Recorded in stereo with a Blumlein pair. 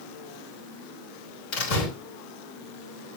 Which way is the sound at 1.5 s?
40° left.